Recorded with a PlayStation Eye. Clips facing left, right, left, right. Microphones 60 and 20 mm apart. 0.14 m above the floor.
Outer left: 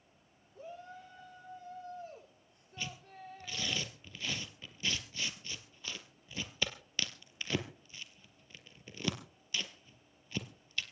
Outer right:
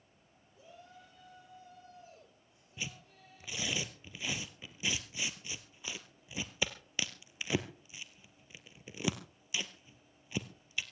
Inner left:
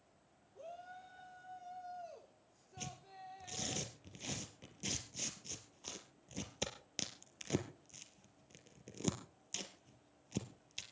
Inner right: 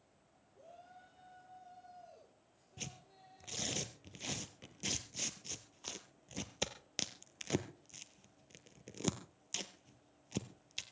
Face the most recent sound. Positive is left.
turn(degrees=-15)  # may be behind; listen again after turning